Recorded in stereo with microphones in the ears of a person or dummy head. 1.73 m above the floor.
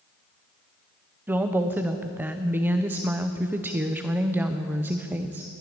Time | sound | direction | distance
1.3 | a woman speaking | 10° right (ahead or behind) | 0.7 m